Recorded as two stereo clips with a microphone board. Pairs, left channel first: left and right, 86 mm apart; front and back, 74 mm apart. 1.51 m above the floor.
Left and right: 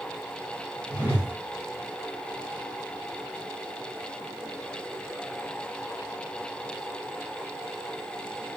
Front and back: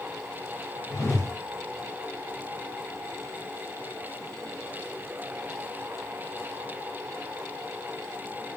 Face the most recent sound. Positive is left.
turn(degrees=-25)